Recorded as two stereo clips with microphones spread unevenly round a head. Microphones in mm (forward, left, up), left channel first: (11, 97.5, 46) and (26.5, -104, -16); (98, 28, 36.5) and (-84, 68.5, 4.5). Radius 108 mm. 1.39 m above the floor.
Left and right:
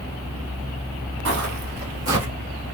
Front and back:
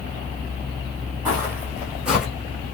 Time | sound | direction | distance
1.2 | footsteps | 105° right | 1.7 m